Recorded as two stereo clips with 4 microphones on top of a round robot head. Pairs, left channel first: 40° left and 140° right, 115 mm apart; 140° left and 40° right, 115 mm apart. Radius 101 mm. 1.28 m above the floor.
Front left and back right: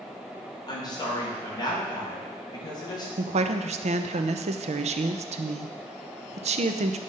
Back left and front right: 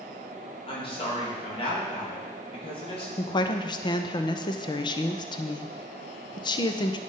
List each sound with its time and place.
0.7 s a woman speaking: 95° left, 2.5 m
3.2 s a woman speaking: 170° right, 0.6 m